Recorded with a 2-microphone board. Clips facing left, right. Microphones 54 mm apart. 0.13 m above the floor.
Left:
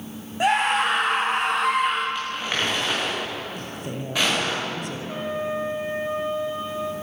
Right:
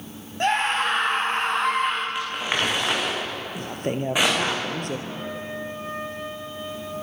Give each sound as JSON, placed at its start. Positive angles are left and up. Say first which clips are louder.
{"t": 0.4, "sound": "a scream", "louder": "left 2 dB", "side_deg": 5, "distance_m": 7.0}
{"t": 2.1, "sound": "crumpling", "louder": "right 1 dB", "side_deg": -15, "distance_m": 7.5}
{"t": 3.5, "sound": "a woman speaking", "louder": "right 5 dB", "side_deg": -50, "distance_m": 3.0}
{"t": 5.1, "sound": "a trumpet", "louder": "left 5 dB", "side_deg": 20, "distance_m": 3.0}